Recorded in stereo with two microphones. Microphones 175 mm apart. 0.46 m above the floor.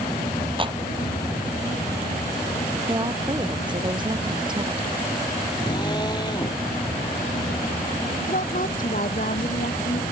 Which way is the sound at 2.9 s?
25° right (ahead or behind).